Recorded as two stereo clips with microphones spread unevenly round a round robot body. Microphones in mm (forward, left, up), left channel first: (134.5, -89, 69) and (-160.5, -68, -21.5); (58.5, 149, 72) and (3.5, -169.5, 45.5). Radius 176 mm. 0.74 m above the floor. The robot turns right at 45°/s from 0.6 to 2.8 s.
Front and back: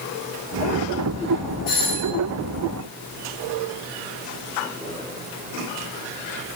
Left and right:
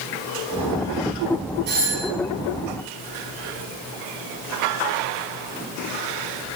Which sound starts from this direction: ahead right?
A doorbell, at 1.7 s.